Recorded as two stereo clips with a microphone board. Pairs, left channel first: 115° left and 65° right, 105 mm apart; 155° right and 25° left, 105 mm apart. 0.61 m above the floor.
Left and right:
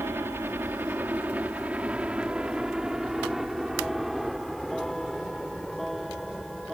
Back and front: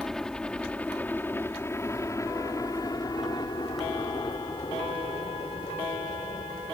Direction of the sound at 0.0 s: 80° right.